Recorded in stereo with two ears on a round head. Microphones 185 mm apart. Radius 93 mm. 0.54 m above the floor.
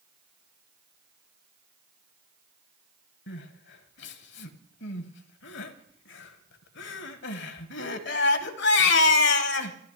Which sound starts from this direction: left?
Crying, at 3.3 s.